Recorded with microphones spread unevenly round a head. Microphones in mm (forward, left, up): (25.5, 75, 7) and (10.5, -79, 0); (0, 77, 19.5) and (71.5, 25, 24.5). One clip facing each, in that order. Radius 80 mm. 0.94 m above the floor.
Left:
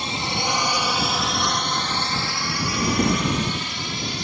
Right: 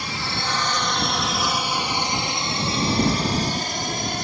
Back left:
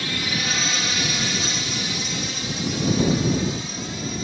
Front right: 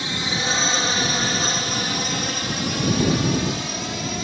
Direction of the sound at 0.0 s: 25° left.